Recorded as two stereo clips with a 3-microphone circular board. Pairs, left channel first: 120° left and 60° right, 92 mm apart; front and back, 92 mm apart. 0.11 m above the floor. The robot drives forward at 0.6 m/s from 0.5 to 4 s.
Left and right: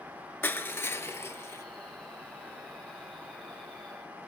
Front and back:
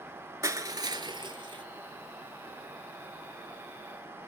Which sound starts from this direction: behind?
Crushing, at 0.4 s.